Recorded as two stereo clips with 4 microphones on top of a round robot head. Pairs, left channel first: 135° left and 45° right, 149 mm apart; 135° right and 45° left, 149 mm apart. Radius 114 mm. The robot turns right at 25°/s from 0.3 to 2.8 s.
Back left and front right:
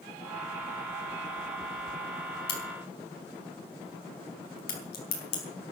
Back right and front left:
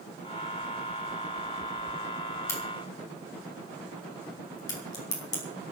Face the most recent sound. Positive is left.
turn(degrees=160)